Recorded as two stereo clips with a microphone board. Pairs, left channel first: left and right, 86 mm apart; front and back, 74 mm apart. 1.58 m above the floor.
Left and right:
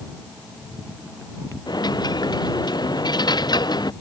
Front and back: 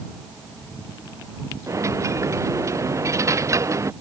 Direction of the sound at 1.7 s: 130° left.